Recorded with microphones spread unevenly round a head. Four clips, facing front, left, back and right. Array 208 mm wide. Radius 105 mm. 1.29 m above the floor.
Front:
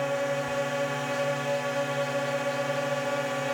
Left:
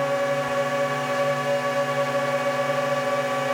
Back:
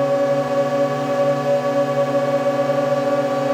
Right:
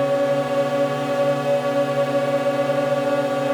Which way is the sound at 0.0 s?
145° right.